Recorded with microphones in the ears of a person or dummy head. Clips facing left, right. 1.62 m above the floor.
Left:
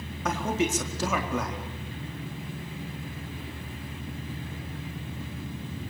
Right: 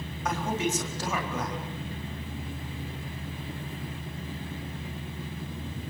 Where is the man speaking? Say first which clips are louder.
Left 2 dB; 65° left (ahead or behind), 4.5 m.